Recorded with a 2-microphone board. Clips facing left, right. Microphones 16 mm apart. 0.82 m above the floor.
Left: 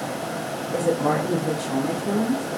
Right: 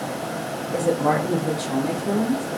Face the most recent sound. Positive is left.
turn(degrees=-55)  # may be behind; listen again after turning